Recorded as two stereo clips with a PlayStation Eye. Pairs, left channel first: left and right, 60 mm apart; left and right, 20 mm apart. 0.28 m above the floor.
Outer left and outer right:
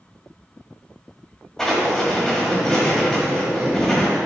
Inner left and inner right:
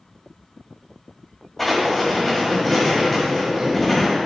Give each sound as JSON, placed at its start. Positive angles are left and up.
{"t": 1.6, "sound": "writing", "side_deg": 5, "distance_m": 1.7}